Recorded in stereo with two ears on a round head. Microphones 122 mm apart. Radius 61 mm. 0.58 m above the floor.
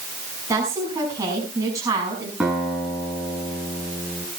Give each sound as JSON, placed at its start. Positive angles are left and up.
{"t": 0.5, "sound": "a woman speaking", "side_deg": -25, "distance_m": 6.0}
{"t": 2.4, "sound": "a guitar", "side_deg": -10, "distance_m": 6.0}